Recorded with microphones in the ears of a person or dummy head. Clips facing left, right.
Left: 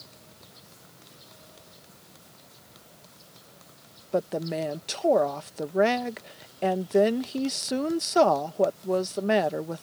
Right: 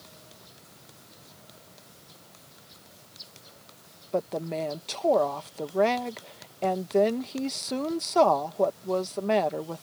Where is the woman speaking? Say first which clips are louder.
Left 2 dB; 15° left (ahead or behind).